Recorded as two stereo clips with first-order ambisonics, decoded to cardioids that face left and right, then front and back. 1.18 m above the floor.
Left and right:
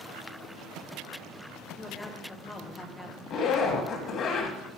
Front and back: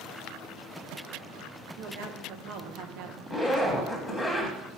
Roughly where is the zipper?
Left.